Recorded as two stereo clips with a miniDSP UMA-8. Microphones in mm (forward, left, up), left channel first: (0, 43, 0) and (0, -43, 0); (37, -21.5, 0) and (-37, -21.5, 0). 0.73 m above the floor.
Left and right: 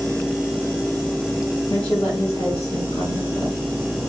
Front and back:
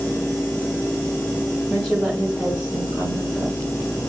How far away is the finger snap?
I don't hear a finger snap.